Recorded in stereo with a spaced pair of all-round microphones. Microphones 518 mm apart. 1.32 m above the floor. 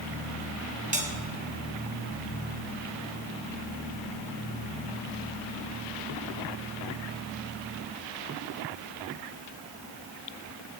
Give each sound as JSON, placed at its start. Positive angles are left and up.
{"t": 0.9, "sound": "a bell", "side_deg": -15, "distance_m": 2.5}